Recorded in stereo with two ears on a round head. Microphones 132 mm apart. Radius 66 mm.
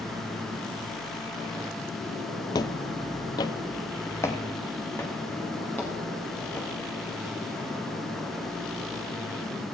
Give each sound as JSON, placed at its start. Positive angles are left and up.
{"t": 2.5, "sound": "footsteps", "side_deg": 25, "distance_m": 0.6}